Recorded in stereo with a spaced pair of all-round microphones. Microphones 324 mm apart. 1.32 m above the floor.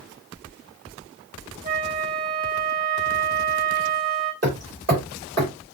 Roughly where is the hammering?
Right.